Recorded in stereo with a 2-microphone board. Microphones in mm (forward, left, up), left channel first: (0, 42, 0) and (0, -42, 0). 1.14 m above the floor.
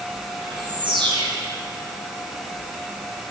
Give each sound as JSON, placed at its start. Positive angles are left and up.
{"t": 0.4, "sound": "a bird", "side_deg": -75, "distance_m": 8.5}